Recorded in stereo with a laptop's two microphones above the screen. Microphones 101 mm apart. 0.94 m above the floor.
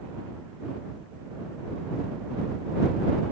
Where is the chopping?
No chopping in this recording.